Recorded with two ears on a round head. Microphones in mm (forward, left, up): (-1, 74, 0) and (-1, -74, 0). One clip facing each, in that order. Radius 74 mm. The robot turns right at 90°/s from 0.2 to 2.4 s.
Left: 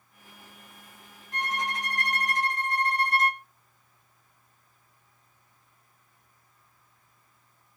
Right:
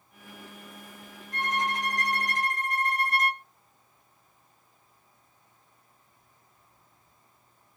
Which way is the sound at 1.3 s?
50° left.